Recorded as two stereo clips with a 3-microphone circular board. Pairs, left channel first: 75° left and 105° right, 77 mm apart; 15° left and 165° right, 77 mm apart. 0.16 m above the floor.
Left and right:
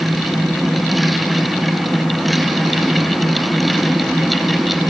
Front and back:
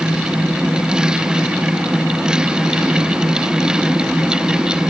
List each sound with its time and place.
Only background noise.